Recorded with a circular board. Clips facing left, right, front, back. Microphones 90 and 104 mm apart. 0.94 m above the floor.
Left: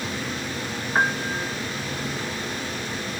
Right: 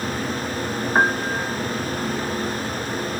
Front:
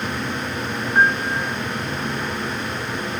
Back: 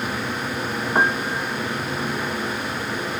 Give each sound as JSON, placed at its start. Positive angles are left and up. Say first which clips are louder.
{"t": 0.9, "sound": "a piano", "louder": "right 3 dB, front 3 dB", "azimuth_deg": -160}